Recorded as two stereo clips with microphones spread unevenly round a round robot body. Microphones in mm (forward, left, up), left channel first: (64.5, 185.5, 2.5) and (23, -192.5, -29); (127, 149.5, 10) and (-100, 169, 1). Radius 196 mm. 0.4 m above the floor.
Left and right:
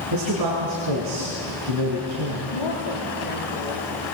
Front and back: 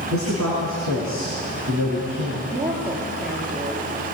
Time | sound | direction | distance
0.1 | a man speaking | 135° right | 5 m
2.5 | a woman speaking | 125° left | 8 m